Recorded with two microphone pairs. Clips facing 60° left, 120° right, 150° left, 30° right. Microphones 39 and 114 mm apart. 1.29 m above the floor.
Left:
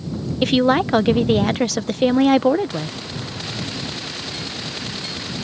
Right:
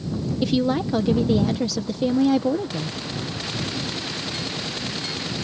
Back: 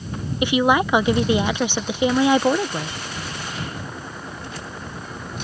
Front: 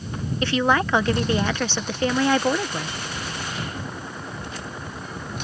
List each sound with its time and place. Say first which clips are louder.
0.4 s a woman speaking: left 6 dB, back 3 dB; 75° left